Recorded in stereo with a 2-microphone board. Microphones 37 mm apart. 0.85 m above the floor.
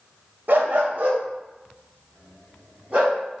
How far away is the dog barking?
About 0.6 m.